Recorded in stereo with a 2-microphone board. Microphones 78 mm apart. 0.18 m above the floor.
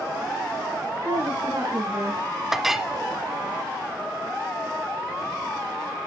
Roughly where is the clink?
Centre.